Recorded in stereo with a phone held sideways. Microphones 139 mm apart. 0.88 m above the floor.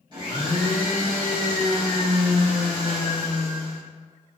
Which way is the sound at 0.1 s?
35° right (ahead or behind).